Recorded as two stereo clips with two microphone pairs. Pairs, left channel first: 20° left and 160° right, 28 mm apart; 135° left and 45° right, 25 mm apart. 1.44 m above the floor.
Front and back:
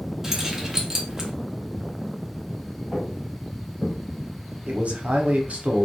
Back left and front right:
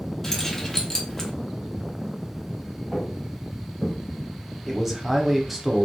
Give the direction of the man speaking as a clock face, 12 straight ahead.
4 o'clock.